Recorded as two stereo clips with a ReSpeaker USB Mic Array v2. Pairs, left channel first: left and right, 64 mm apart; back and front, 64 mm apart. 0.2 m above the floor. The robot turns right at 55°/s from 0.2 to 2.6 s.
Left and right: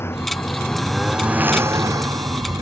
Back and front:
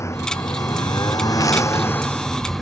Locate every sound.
0.0 s a lawn mower: 140° left; by 2.6 s 90° right